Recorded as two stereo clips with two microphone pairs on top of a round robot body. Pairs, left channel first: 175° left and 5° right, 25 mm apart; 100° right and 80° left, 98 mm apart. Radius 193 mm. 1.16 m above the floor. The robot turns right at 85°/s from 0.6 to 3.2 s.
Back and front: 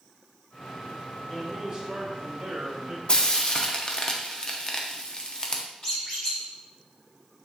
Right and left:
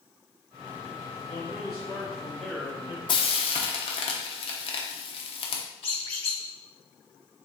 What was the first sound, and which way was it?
A man speaking, 105° right.